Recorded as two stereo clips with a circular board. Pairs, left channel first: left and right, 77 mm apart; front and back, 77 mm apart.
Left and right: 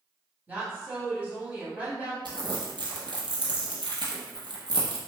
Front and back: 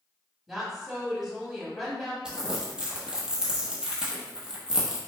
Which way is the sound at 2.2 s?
100° right.